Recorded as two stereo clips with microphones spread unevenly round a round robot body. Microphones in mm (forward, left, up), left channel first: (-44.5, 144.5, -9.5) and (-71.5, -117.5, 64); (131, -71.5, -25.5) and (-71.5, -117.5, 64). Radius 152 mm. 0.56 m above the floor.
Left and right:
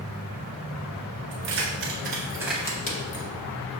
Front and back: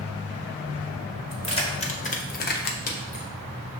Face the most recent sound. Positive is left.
turn(degrees=60)